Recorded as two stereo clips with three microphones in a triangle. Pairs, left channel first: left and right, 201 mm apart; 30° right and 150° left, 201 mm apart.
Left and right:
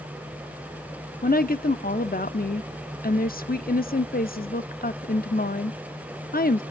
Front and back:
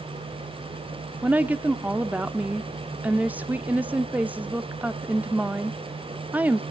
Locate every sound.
1.2 s a woman speaking: 70° left, 0.8 m